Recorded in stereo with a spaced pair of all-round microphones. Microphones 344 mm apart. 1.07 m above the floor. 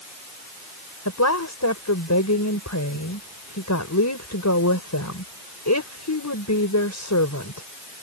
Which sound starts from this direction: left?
A woman speaking, at 1.1 s.